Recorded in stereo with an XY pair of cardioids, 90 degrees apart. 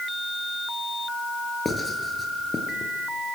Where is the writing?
30° left, 6 m.